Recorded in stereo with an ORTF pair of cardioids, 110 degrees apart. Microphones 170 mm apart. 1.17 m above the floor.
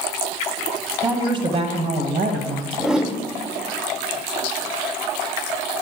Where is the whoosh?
5° right, 0.9 m.